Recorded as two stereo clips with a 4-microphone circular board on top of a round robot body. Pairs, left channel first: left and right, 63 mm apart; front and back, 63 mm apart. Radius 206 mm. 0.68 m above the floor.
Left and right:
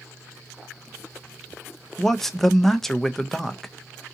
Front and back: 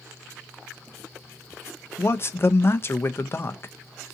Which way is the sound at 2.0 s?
10° left.